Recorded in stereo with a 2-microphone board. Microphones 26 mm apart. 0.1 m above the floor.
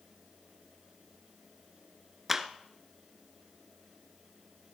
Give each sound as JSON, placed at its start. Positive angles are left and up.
{"t": 2.3, "sound": "a clap", "side_deg": -10, "distance_m": 0.9}